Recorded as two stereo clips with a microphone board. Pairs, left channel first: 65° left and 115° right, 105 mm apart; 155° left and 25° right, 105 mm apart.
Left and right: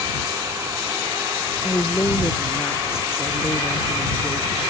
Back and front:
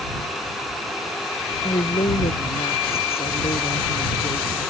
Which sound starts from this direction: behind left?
A woman speaking, at 1.6 s.